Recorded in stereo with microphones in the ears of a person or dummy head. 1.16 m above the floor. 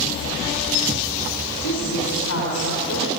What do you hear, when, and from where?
1.6 s a woman speaking: 75° left (ahead or behind), 4.5 m; by 3.1 s 85° left, 5 m